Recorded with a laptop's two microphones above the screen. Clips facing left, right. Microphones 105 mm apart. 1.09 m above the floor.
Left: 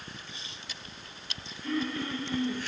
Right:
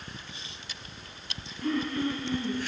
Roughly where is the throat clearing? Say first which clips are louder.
Right 3 dB; right.